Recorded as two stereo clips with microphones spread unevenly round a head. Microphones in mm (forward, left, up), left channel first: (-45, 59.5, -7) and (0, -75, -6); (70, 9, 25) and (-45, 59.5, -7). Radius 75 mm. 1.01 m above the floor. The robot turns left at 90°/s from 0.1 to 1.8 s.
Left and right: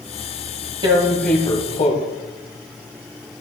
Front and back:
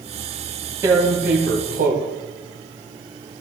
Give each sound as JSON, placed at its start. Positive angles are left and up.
{"t": 0.8, "sound": "tearing paper", "azimuth_deg": -125, "distance_m": 1.8}